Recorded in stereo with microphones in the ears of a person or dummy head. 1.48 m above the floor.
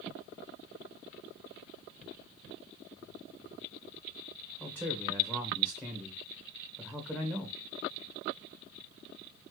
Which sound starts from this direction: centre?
A man speaking, at 4.6 s.